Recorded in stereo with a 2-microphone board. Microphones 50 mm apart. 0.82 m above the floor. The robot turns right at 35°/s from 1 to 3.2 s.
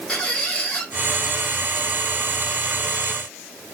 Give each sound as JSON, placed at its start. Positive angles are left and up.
{"t": 0.1, "sound": "a squeak", "side_deg": 25, "distance_m": 1.5}